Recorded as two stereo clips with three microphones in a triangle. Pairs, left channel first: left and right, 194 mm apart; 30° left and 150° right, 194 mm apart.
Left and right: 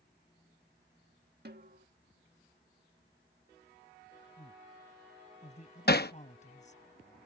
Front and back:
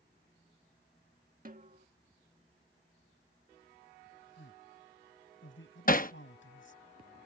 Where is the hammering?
65° left.